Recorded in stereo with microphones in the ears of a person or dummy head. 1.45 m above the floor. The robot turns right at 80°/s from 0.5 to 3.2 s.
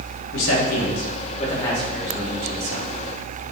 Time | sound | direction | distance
0.3 | a man speaking | 75° left (ahead or behind) | 1.8 m